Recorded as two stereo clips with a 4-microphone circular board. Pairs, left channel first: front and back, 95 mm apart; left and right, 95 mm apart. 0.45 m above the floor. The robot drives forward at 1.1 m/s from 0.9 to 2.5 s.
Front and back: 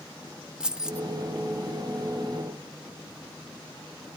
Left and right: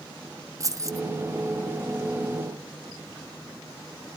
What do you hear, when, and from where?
0.6 s keys jangling: 105° right, 0.5 m; by 1.1 s 130° right, 0.6 m